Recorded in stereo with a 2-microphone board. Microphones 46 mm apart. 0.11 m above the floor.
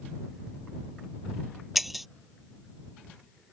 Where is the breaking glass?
5° right (ahead or behind).